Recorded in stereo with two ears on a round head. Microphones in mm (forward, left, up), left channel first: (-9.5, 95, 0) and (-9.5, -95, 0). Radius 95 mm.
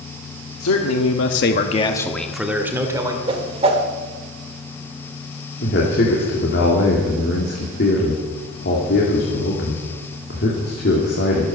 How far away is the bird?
I don't hear a bird.